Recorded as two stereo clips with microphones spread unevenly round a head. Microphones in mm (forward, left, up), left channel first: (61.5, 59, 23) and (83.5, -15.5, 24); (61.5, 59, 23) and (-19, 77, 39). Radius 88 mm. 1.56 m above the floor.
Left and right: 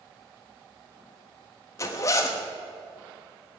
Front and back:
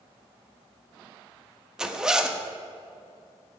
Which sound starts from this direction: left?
A zipper, at 1.8 s.